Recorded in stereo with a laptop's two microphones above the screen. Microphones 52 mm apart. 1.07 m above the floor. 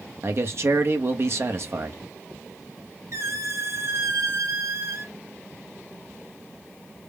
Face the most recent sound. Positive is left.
turn(degrees=-60)  # may be behind; listen again after turning